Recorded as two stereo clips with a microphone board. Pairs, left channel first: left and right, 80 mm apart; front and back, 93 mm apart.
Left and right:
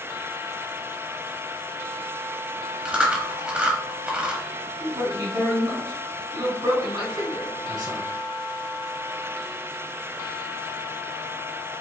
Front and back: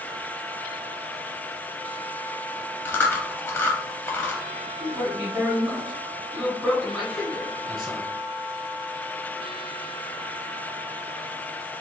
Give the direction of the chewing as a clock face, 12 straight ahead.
1 o'clock.